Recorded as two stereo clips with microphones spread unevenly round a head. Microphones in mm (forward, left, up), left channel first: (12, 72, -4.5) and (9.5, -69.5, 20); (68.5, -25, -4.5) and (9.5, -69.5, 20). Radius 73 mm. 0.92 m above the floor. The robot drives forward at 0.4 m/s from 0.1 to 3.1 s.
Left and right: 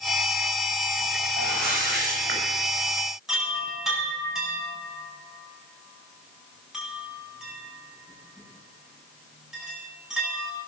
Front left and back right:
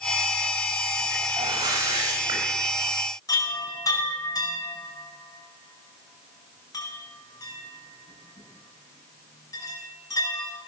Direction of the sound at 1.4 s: 110° right.